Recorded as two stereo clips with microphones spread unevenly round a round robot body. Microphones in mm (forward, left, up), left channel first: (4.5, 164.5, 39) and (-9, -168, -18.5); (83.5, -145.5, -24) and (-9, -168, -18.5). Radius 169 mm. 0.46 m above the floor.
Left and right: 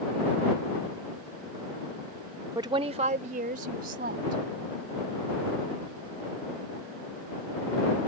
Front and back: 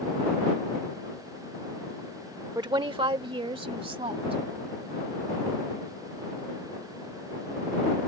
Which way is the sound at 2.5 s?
155° right.